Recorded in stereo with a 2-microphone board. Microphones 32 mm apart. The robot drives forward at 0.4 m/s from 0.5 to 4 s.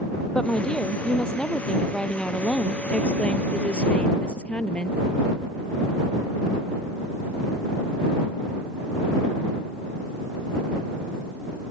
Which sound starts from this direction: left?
A woman speaking, at 0.3 s.